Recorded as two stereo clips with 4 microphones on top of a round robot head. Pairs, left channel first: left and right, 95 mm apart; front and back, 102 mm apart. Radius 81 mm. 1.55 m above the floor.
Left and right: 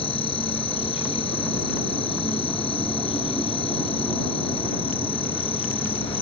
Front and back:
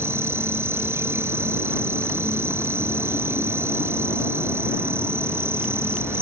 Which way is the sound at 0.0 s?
110° left.